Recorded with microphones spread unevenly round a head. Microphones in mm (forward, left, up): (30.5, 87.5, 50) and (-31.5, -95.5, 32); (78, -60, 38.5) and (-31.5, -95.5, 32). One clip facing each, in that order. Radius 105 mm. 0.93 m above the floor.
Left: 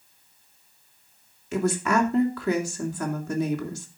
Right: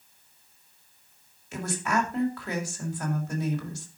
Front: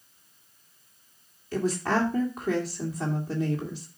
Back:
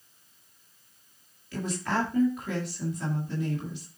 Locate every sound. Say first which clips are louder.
1.5 s a woman speaking: left 6 dB, front 4 dB; 85° left, 2.5 m